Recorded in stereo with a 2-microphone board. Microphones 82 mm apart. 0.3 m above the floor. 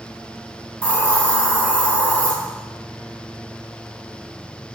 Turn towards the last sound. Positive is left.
turn(degrees=25)  # may be behind; listen again after turning